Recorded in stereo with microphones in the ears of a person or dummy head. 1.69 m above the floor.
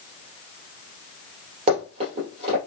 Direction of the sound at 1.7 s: 40° right (ahead or behind).